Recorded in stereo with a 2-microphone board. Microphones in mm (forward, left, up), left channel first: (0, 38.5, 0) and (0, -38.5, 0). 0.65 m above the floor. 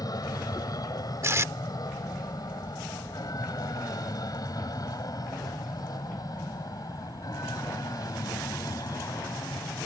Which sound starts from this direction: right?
Tape being pulled, at 1.2 s.